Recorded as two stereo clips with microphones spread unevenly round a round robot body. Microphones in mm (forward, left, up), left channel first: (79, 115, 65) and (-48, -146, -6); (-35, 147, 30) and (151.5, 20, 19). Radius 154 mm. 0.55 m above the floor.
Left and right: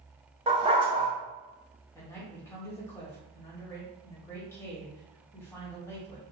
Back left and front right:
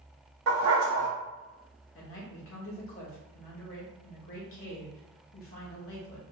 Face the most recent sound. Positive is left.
turn(degrees=155)